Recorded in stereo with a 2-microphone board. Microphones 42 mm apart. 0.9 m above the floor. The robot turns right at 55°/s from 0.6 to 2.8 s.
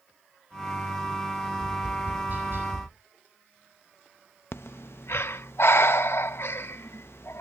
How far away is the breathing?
About 0.6 m.